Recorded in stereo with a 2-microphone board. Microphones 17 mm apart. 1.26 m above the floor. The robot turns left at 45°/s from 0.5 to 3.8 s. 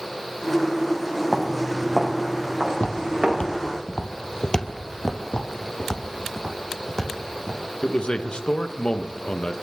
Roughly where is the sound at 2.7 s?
Left.